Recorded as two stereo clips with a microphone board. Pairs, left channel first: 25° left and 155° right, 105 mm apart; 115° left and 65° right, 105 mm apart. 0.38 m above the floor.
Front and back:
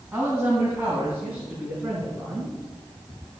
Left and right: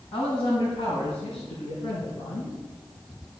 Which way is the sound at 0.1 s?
120° left.